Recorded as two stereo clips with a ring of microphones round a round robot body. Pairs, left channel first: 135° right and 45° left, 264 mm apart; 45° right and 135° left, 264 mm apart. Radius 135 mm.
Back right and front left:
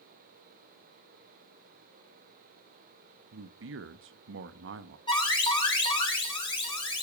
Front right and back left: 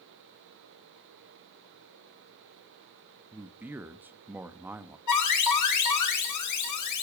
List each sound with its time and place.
3.3 s a man speaking: 55° left, 1.1 m
5.1 s an alarm: 60° right, 6 m